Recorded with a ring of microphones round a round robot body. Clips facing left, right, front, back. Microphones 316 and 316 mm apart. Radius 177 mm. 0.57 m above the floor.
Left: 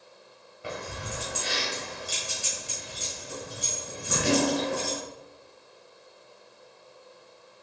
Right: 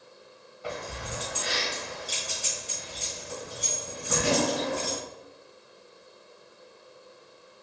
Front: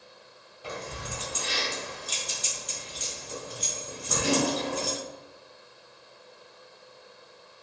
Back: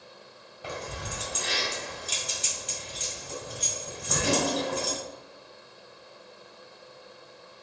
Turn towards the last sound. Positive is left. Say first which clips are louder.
# even, back 1 dB
turn(degrees=150)